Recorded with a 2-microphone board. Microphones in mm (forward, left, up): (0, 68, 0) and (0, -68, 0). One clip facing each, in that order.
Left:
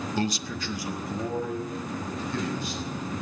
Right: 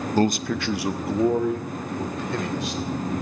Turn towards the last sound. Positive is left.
turn(degrees=-85)